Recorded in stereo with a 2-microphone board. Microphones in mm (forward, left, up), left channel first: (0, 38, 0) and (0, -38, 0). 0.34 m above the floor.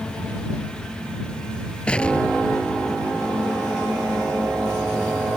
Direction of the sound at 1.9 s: 15° left (ahead or behind).